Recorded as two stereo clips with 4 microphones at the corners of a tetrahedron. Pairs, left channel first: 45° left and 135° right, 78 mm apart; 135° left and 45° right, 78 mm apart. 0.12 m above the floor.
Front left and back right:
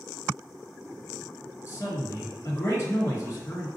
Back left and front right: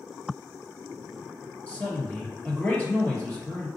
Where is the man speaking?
75° left, 2.0 m.